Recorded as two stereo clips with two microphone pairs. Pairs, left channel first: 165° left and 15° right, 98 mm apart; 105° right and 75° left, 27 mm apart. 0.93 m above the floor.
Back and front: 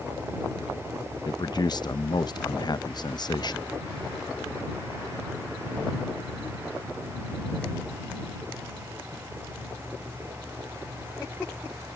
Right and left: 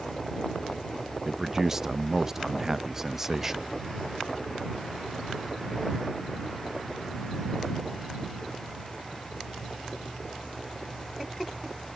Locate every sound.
1.2 s a man speaking: 145° left